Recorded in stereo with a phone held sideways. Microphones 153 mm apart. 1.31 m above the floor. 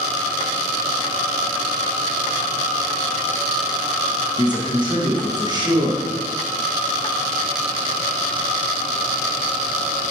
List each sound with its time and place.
4.4 s a man speaking: 30° right (ahead or behind), 1.6 m